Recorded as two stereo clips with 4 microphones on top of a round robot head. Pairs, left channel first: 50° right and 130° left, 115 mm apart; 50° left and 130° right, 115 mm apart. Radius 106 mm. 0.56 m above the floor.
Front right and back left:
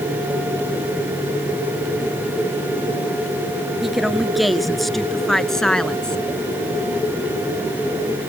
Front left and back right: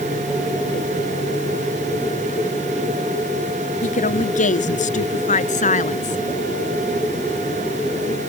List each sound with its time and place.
3.8 s a woman speaking: 45° left; by 6.2 s 35° left